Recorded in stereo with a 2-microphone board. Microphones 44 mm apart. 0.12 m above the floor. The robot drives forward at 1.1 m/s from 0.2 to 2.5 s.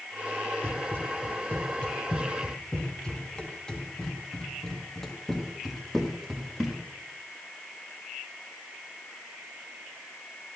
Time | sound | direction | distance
0.6 | running footsteps | 40° left (ahead or behind) | 5 m